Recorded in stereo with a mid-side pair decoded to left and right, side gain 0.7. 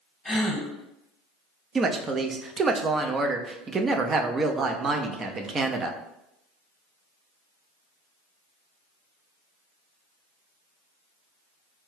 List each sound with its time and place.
0.2 s a gasp: 10° left, 1.2 m
1.8 s a woman speaking: 25° right, 0.5 m